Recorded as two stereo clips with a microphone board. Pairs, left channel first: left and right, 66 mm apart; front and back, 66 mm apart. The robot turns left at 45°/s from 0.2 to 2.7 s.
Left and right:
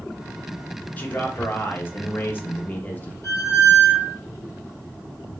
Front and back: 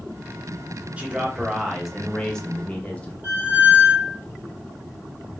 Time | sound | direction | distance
1.0 | a man speaking | 130° left | 0.7 m
3.2 | a squeak | 120° left | 1.1 m